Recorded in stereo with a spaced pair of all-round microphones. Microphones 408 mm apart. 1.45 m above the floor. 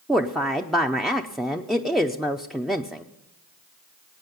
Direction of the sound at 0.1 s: Centre (ahead or behind).